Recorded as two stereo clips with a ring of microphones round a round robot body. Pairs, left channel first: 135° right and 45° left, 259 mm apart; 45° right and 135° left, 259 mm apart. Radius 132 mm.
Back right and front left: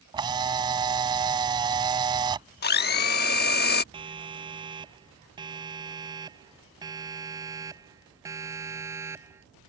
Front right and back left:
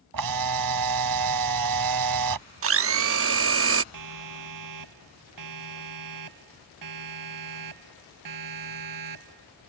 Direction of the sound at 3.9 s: 120° left.